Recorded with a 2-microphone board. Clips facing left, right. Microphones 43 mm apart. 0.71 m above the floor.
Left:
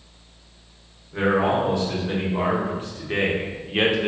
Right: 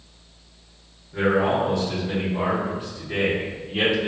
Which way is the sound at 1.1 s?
30° left (ahead or behind).